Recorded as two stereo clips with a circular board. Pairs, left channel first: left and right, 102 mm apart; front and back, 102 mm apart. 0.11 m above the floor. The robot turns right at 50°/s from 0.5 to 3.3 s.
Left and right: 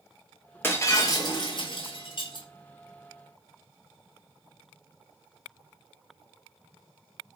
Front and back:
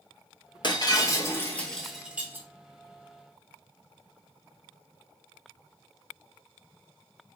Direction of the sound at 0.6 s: 25° left.